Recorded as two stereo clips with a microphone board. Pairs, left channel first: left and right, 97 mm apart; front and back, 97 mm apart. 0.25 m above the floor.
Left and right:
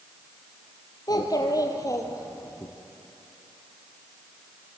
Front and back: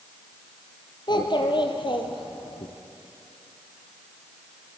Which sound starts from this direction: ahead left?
A child speaking, at 1.1 s.